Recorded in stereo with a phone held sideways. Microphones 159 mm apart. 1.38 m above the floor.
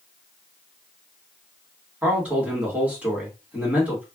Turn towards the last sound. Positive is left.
turn(degrees=-10)  # may be behind; listen again after turning